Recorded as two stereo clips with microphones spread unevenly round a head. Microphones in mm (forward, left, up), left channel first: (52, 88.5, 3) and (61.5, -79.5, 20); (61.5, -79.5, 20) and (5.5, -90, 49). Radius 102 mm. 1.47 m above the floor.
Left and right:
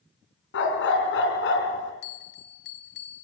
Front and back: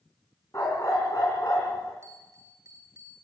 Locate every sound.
0.5 s a dog barking: 95° left, 3.5 m
2.0 s a bell: 120° left, 0.9 m